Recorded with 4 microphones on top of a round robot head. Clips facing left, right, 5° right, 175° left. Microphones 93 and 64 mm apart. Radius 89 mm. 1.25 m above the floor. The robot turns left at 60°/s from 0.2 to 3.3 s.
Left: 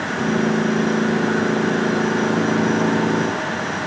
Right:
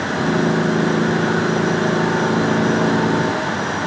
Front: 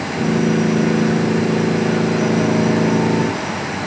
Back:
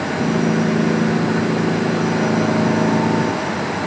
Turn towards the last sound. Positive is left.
No sound to turn to.